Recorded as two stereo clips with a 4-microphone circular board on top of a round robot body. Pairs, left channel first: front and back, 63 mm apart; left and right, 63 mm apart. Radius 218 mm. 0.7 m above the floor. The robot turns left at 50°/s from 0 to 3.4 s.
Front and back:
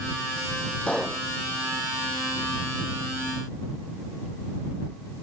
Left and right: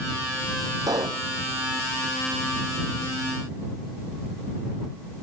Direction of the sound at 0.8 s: 70° right.